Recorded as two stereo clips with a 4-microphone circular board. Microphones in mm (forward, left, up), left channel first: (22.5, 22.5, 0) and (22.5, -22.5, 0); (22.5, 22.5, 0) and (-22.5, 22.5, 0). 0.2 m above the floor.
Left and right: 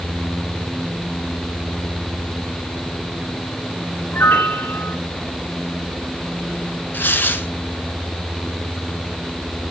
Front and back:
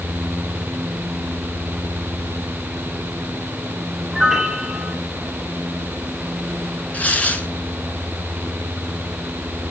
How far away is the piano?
About 1.1 m.